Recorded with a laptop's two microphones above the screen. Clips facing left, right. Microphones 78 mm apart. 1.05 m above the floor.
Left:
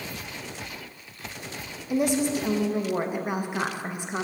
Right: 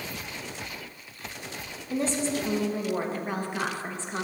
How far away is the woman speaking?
About 0.9 m.